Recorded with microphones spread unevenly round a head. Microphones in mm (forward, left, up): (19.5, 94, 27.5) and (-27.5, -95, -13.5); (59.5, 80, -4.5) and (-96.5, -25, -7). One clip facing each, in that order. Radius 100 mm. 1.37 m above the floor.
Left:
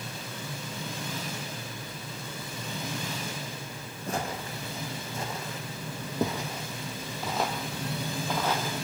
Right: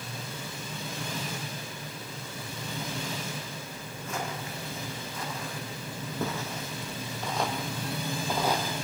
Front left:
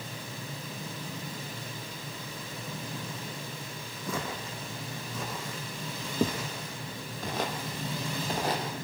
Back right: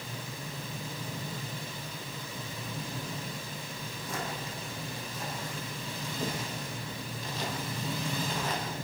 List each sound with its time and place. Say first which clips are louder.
4.1 s footsteps: left 3 dB, front left 3 dB; 25° left, 4 m; by 8.8 s 25° right, 2.5 m